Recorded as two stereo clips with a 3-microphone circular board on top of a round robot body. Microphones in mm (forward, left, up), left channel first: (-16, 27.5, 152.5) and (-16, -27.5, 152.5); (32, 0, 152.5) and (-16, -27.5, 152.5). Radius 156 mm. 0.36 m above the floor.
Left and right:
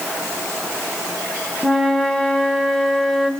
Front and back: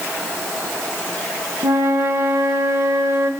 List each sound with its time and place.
1.6 s a flute: straight behind, 1.6 m